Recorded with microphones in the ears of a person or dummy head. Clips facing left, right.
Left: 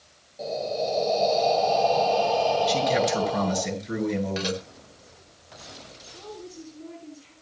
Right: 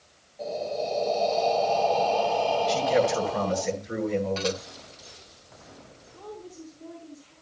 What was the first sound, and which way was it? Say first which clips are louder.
Breathing: left 2 dB; 30° left (ahead or behind).